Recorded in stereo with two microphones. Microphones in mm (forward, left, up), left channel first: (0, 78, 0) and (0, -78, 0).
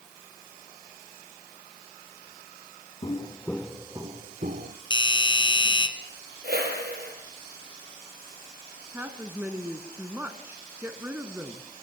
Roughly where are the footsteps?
Left.